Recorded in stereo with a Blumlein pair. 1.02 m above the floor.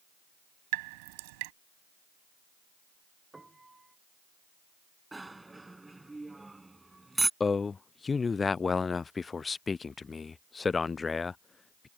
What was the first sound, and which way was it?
Dripping, 45° right.